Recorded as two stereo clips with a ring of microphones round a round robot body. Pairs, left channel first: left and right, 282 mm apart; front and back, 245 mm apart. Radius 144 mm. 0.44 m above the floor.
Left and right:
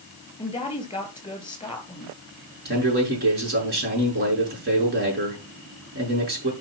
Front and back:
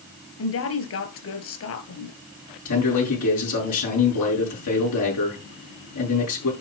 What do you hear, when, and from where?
0.4 s a woman speaking: 15° left, 3.5 m
2.6 s a man speaking: 35° right, 6.5 m